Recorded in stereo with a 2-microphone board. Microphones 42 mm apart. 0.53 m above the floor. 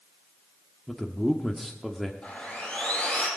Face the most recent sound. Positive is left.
turn(degrees=20)  # may be behind; listen again after turning